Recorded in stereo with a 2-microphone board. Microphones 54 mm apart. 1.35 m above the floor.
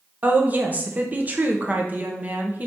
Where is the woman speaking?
30° right (ahead or behind), 1.1 m.